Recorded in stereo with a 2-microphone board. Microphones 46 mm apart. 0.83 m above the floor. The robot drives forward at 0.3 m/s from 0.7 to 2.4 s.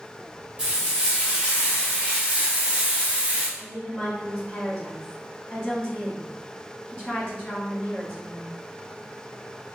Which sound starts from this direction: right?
Frying, at 0.6 s.